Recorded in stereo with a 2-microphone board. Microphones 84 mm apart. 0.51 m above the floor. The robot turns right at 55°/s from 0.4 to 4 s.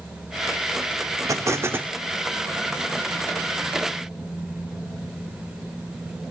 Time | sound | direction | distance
1.3 | an explosion | 60° right | 0.6 m